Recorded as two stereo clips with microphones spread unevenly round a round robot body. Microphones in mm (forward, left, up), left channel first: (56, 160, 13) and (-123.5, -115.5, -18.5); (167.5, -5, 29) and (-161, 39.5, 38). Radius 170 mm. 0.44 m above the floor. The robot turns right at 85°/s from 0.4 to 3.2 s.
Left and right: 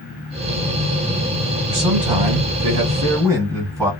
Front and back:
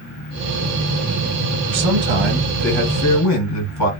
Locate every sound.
1.7 s a man speaking: 170° right, 3 m; by 3.9 s 45° right, 3 m